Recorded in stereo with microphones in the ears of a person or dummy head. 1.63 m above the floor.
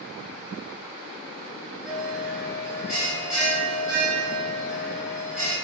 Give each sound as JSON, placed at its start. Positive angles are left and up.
{"t": 1.9, "sound": "a bell", "side_deg": -5, "distance_m": 1.7}